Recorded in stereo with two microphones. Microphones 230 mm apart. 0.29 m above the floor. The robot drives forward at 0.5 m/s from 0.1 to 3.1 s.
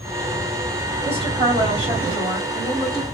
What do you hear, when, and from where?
1.0 s a woman speaking: 25° right (ahead or behind), 1.9 m; by 3.0 s 20° right (ahead or behind), 2.5 m